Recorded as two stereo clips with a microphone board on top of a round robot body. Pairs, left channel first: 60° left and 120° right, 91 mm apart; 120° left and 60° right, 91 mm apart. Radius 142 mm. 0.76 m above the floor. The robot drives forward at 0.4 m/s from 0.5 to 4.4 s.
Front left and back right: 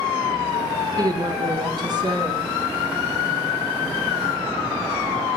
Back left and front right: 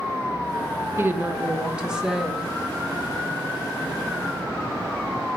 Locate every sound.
1.0 s a woman speaking: 110° right, 0.7 m; by 2.5 s 150° right, 1.0 m